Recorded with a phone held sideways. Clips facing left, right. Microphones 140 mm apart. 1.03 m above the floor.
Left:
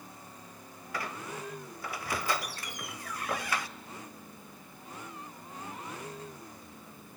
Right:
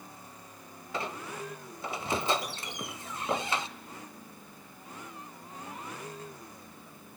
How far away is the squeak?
About 1.0 m.